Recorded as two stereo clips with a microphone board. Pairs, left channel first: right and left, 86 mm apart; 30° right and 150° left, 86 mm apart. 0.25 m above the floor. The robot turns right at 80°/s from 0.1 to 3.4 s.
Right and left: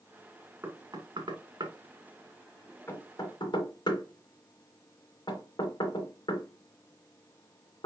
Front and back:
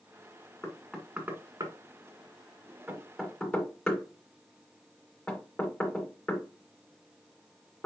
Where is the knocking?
30° left, 2 m; by 7.9 s 110° right, 2 m.